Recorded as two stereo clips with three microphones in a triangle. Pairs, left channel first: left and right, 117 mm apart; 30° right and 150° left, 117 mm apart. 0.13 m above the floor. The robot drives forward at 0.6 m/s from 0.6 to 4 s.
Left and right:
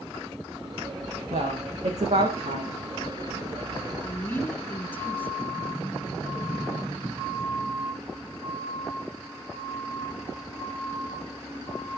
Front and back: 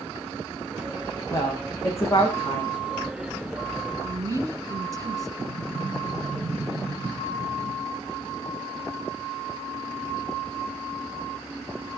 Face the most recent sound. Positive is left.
turn(degrees=-155)